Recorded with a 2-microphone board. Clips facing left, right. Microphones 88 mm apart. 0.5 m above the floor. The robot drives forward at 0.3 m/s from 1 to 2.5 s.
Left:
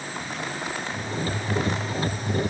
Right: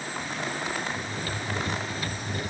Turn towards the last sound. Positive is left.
No sound to turn to.